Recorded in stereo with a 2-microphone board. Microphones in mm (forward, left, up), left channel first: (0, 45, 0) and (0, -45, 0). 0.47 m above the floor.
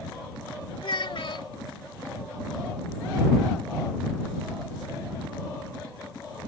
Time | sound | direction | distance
0.8 | a child speaking | 70° left (ahead or behind) | ?